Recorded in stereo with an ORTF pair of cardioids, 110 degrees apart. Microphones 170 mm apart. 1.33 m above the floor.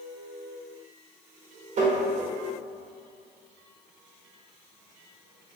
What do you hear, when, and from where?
1.8 s tapping: 45° right, 0.7 m